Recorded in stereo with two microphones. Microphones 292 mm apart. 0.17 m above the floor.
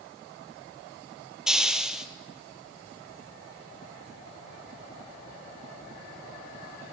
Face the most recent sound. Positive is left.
turn(degrees=0)  # may be behind; listen again after turning